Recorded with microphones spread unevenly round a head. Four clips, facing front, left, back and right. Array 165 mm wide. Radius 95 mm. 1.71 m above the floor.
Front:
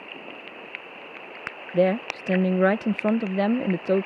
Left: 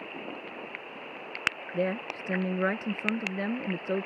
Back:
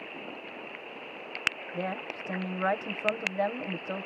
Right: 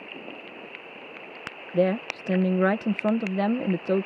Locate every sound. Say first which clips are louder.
1.7 s a woman speaking: right 8 dB, front 16 dB; 40° right